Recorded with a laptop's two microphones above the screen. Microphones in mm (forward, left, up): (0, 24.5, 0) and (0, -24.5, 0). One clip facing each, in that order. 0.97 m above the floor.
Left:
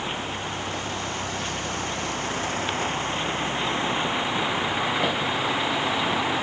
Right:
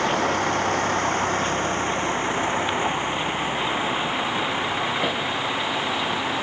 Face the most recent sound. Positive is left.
turn(degrees=5)  # may be behind; listen again after turning